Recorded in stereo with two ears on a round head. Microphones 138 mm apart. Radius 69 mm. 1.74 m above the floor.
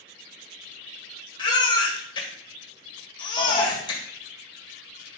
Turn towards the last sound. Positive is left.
turn(degrees=35)  # may be behind; listen again after turning